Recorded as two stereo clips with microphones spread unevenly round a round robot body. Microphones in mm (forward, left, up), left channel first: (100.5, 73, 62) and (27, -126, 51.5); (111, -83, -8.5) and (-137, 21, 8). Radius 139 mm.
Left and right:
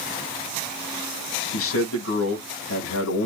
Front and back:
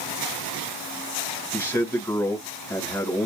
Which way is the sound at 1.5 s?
60° left.